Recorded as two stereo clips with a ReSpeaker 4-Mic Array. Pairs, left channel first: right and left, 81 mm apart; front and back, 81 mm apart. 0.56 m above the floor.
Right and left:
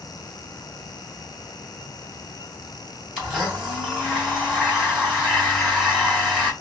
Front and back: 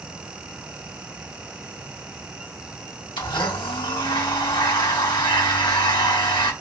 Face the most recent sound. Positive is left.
turn(degrees=10)